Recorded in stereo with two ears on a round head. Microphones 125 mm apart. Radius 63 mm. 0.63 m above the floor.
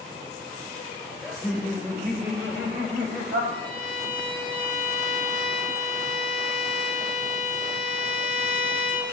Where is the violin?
10° left (ahead or behind), 3 m.